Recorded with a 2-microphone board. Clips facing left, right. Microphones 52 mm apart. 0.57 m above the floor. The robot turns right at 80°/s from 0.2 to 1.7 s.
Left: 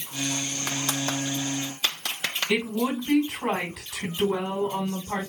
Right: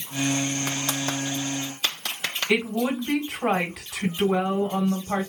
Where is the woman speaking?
75° right (ahead or behind), 2.5 m.